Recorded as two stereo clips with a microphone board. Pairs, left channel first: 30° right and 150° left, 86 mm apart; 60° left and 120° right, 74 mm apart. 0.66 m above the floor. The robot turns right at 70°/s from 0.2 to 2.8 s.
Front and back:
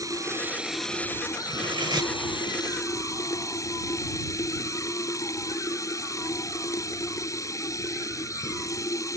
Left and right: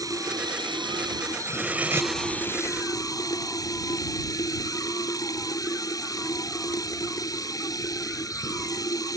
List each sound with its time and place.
0.0 s running water: 160° right; by 9.2 s 20° left
1.5 s cutlery clinking: 150° left; by 2.1 s 165° right